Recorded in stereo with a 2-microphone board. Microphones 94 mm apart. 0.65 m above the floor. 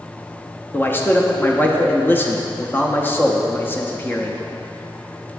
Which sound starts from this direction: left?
A man speaking, at 0.7 s.